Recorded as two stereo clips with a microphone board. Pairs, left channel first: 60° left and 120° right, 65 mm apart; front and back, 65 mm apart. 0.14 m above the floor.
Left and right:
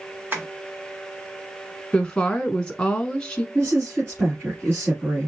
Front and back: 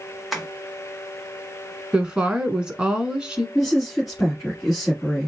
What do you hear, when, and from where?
0.3 s tapping: 90° right, 1.4 m
1.9 s a woman speaking: 120° left, 1.2 m
3.5 s a woman speaking: 85° right, 1.8 m